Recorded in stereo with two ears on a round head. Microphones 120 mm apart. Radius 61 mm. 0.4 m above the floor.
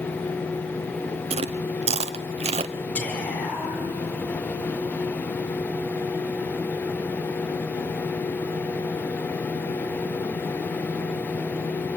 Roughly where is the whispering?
Centre.